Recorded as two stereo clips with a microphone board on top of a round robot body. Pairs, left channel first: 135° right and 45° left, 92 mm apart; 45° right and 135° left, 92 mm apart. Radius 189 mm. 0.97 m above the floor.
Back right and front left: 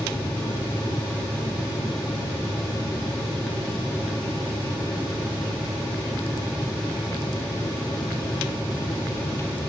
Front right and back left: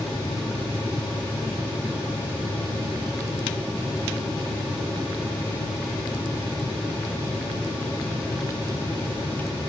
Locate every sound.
Only background noise.